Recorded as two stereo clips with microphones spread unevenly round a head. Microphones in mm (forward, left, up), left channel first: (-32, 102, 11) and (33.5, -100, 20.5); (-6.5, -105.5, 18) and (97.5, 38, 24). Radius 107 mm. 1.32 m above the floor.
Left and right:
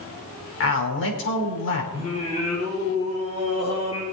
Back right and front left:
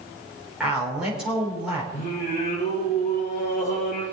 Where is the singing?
175° left, 8 m.